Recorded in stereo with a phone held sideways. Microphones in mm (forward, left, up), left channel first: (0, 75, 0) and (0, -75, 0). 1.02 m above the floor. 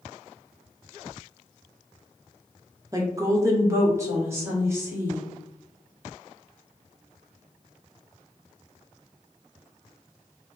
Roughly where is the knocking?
No knocking in this recording.